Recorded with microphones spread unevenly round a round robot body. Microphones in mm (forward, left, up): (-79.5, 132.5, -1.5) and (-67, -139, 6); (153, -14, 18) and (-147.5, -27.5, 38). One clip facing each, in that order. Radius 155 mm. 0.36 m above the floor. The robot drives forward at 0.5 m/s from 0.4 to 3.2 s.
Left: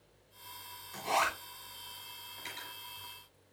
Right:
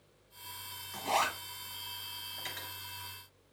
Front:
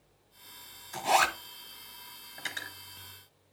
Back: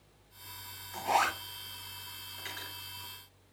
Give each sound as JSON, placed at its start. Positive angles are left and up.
{"t": 0.9, "sound": "a zipper", "azimuth_deg": -15, "distance_m": 2.0}
{"t": 2.4, "sound": "cutlery clinking", "azimuth_deg": -20, "distance_m": 3.5}